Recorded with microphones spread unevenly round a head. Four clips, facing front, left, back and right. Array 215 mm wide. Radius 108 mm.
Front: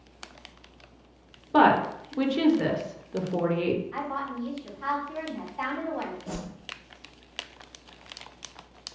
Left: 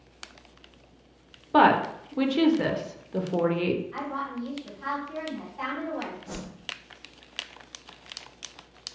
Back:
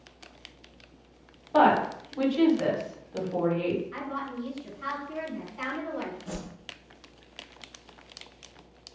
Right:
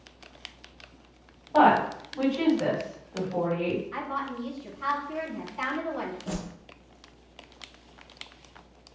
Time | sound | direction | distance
1.5 | a woman speaking | 65° left | 0.8 m
3.9 | a woman speaking | 120° right | 1.5 m
6.3 | a whoosh | 55° right | 0.6 m